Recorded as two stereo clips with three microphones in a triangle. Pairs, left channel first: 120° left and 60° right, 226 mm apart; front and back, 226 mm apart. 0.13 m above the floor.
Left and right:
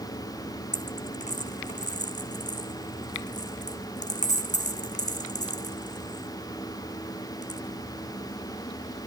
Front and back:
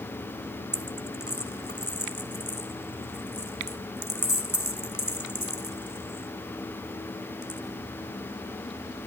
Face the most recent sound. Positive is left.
turn(degrees=175)